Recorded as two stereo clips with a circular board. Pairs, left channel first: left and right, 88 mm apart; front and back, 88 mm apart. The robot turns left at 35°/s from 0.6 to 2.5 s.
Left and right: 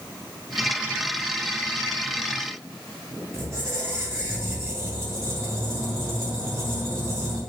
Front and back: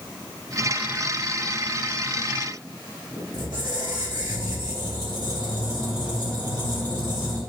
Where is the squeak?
145° right, 1.5 m.